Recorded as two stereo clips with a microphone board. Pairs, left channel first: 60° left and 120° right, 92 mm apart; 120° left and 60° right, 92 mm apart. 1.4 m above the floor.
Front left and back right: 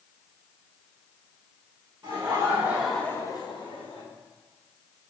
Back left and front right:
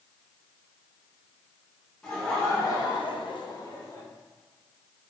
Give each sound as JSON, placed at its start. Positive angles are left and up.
{"t": 2.0, "sound": "laughter", "azimuth_deg": -165, "distance_m": 1.5}